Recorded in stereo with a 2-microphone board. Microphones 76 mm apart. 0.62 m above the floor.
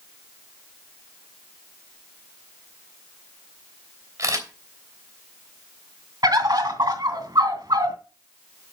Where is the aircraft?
I don't hear an aircraft.